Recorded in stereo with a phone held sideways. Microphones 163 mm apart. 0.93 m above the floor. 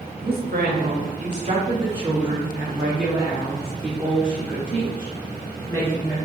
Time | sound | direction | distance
0.2 | a woman speaking | 75° right (ahead or behind) | 1.2 m